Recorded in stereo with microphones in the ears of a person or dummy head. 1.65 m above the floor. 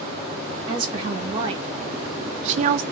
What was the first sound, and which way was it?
A woman speaking, 30° right (ahead or behind).